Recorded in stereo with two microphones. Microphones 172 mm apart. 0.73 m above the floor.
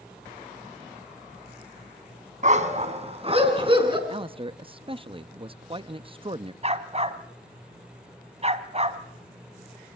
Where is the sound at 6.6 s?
40° right (ahead or behind), 1.4 m.